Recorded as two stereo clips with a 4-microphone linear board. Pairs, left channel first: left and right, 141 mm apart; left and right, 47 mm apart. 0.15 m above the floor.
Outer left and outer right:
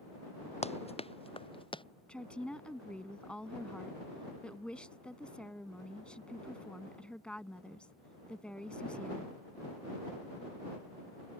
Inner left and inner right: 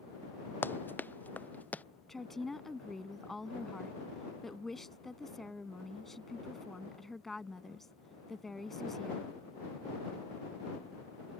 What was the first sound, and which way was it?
Running footsteps, 50° left (ahead or behind).